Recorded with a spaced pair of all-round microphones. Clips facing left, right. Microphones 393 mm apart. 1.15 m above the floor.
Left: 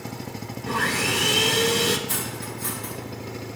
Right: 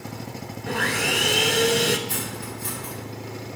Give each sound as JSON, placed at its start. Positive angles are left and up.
{"t": 0.7, "sound": "sawing", "side_deg": 15, "distance_m": 0.8}
{"t": 2.1, "sound": "cutlery clinking", "side_deg": 85, "distance_m": 4.0}